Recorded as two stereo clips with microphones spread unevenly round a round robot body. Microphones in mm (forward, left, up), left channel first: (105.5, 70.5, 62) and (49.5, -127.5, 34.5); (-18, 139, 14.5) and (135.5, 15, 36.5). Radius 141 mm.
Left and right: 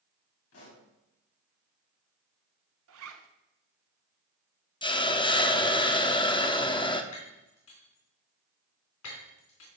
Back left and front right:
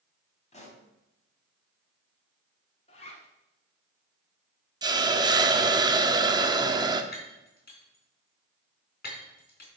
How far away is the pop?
About 3.5 m.